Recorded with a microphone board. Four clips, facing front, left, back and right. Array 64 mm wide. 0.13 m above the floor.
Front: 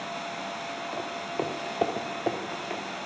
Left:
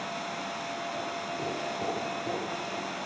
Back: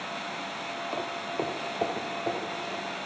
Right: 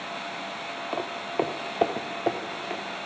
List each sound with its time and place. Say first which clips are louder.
0.9 s footsteps: right 5 dB, even; 100° right, 0.8 m; by 2.8 s 55° right, 1.5 m